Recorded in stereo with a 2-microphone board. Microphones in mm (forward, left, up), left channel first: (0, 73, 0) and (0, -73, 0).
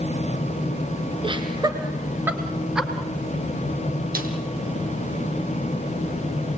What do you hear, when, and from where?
1.2 s laughter: 35° right (ahead or behind), 2 m; by 2.9 s 5° right (ahead or behind), 3 m
4.2 s a snare drum: 80° right, 3.5 m